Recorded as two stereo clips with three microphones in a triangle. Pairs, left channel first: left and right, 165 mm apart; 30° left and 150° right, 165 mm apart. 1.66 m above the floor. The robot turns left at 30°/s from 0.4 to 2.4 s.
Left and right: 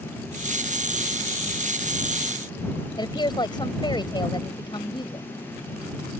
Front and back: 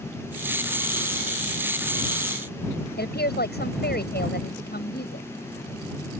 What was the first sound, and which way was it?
A woman speaking, 25° left.